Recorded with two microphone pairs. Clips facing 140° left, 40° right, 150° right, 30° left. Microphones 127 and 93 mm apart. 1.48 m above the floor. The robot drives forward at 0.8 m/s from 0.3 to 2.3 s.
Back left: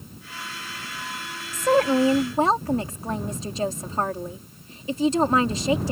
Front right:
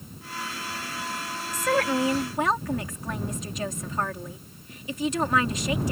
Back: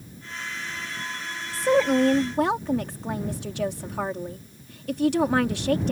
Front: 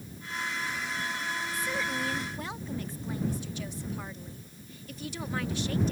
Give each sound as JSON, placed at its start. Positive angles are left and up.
{"t": 1.5, "sound": "a woman speaking", "azimuth_deg": -155}